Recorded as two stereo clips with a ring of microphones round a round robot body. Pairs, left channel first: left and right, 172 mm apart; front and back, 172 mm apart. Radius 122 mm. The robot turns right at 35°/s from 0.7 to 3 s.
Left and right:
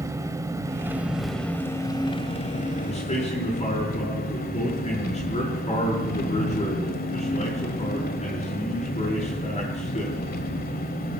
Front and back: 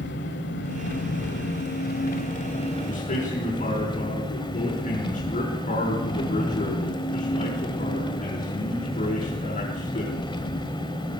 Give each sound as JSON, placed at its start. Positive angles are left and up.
{"t": 0.0, "sound": "an engine running", "azimuth_deg": -20, "distance_m": 1.5}
{"t": 2.9, "sound": "a man speaking", "azimuth_deg": 30, "distance_m": 6.0}